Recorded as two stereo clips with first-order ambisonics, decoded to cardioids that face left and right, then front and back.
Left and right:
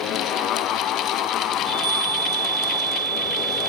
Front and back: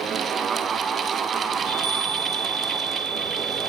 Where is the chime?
145° right, 3.5 m.